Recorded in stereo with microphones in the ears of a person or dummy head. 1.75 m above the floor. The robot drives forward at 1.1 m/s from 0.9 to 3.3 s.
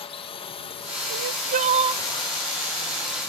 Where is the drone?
25° left (ahead or behind); by 3.3 s 15° left (ahead or behind).